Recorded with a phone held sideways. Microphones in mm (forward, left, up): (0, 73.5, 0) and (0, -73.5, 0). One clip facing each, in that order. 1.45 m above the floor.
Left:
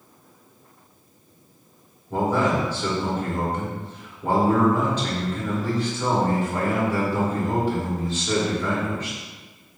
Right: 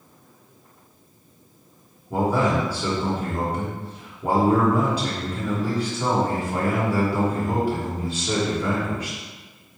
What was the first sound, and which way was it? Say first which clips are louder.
A man speaking: even; 10° right (ahead or behind).